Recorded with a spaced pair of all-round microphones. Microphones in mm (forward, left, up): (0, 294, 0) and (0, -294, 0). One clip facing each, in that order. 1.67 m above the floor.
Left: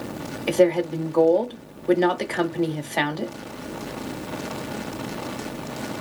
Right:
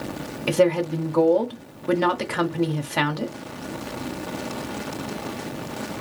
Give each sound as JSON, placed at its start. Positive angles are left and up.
{"t": 0.5, "sound": "a woman speaking", "side_deg": -40, "distance_m": 0.6}